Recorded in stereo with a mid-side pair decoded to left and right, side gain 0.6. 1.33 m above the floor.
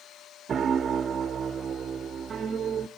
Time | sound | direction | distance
0.5 | a piano | 35° right | 1.2 m